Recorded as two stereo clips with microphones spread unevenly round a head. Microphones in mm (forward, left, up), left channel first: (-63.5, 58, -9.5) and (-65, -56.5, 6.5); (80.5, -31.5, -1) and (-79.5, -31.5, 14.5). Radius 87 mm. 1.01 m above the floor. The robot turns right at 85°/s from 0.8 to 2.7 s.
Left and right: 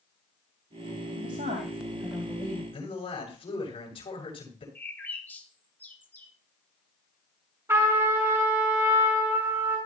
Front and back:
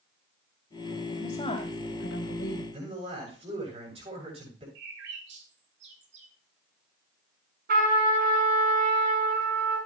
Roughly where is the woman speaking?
Right.